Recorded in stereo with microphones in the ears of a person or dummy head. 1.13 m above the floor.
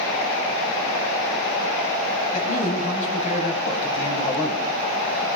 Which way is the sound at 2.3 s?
40° left (ahead or behind).